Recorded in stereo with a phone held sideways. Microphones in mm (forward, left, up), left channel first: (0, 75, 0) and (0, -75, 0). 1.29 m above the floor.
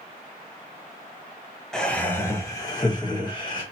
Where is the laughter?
5° left (ahead or behind), 0.9 m; by 3.6 s 30° left (ahead or behind), 2 m.